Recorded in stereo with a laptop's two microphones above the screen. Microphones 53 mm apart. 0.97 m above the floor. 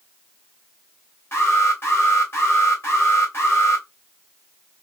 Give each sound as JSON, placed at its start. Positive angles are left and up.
{"t": 1.3, "sound": "an alarm", "side_deg": 55, "distance_m": 3.0}